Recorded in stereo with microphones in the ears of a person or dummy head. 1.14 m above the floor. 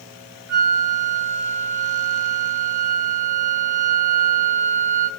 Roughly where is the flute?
Centre.